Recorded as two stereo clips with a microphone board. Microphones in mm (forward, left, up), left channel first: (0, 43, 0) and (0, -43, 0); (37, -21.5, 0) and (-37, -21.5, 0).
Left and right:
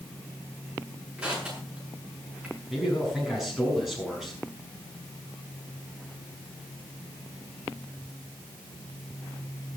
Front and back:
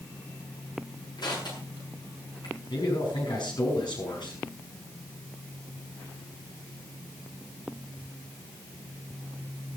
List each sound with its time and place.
1.2 s crushing: 15° right, 7.5 m
2.7 s a man speaking: 5° right, 6.5 m